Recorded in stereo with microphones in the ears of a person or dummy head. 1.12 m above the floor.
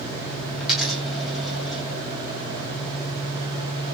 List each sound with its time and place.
0.6 s a dropped coin: centre (ahead or behind), 0.7 m